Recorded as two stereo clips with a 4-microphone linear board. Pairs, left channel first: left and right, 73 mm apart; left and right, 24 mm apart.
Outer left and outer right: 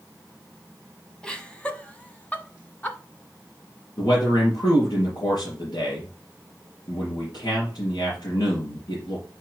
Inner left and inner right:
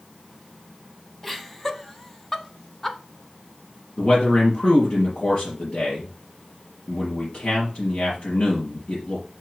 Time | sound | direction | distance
1.2 | laughter | 10° left (ahead or behind) | 1.0 m
4.0 | a man speaking | 65° left (ahead or behind) | 4 m